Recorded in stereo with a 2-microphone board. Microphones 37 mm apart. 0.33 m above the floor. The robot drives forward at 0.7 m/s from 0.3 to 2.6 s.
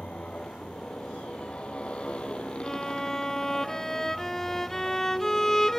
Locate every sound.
0.0 s a motorcycle: 30° left (ahead or behind); by 5.8 s 25° left (ahead or behind)
2.6 s a violin: 10° left (ahead or behind)